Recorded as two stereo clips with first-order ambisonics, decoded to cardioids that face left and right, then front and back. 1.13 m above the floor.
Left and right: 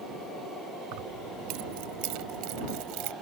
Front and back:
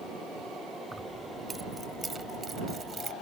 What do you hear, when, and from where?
0.9 s keys jangling: 95° right; by 3.1 s 115° right